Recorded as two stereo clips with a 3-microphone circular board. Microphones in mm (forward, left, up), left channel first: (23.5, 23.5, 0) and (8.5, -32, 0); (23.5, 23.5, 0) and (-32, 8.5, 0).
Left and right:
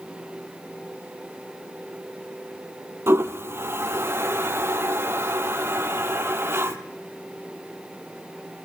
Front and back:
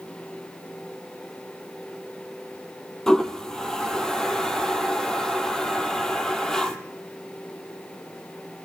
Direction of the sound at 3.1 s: 65° right.